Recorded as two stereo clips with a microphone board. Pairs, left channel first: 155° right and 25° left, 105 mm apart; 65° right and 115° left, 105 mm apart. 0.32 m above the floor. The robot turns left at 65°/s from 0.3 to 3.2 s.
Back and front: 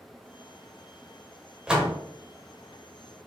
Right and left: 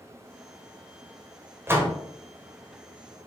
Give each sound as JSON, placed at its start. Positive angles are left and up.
{"t": 1.7, "sound": "a door slam", "azimuth_deg": 95, "distance_m": 0.8}